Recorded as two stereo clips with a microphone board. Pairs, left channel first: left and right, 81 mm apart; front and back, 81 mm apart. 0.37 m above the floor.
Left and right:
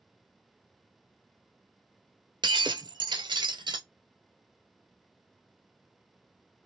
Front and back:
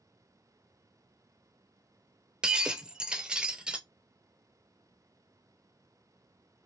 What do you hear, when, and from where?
2.4 s breaking glass: 105° right, 0.7 m